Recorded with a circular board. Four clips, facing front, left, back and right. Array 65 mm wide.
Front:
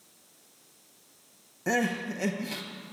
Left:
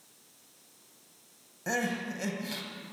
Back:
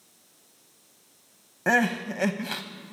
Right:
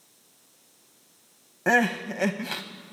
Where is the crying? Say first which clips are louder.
Right 9 dB, back 5 dB; 135° right, 0.6 m.